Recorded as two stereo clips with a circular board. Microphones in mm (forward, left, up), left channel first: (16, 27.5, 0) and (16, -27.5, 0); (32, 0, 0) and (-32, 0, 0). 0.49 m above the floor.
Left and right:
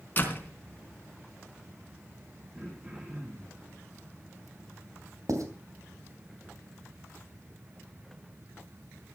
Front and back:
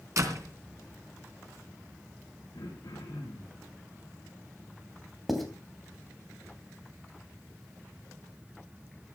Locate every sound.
0.2 s a door slam: 145° left, 3 m
2.5 s throat clearing: 30° right, 7.5 m
5.3 s writing: 90° right, 3 m